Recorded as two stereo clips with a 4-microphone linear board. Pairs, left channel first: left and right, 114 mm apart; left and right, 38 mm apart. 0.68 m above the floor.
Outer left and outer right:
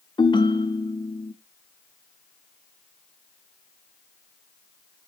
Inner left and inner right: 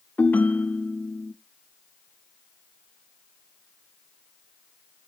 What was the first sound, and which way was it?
A ringtone, 45° left (ahead or behind).